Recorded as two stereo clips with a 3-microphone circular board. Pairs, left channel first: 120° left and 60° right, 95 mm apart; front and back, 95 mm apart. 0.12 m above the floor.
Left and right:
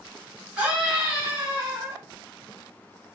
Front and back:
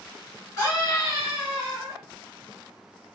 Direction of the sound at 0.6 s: 10° left.